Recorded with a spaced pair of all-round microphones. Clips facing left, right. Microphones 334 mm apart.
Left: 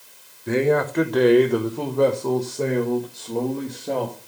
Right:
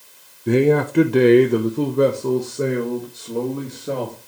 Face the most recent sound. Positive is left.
turn(degrees=-10)  # may be behind; listen again after turning